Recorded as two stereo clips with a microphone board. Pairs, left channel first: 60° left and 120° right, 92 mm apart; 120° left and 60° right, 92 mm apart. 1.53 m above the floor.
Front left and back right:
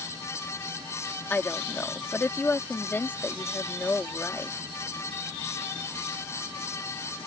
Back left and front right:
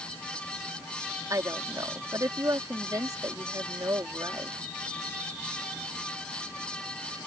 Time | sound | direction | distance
1.3 | a woman speaking | 10° right | ?